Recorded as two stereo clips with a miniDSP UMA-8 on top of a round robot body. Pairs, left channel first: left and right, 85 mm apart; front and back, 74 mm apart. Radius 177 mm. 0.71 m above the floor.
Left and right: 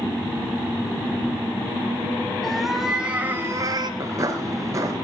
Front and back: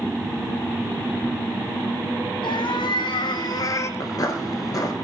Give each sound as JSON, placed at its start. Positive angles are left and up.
{"t": 2.4, "sound": "a cat meowing", "azimuth_deg": 0, "distance_m": 2.0}
{"t": 4.0, "sound": "footsteps", "azimuth_deg": -35, "distance_m": 1.0}